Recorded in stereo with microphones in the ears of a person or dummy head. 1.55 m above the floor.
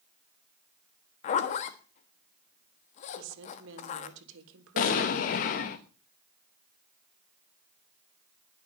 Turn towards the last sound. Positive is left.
turn(degrees=40)  # may be behind; listen again after turning